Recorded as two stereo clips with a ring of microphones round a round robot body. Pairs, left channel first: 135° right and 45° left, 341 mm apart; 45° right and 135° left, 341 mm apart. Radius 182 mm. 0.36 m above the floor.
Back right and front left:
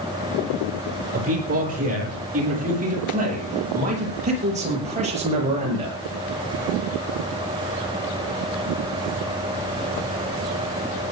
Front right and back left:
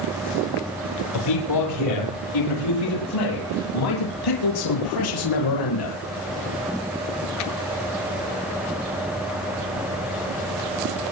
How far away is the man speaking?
About 9.5 m.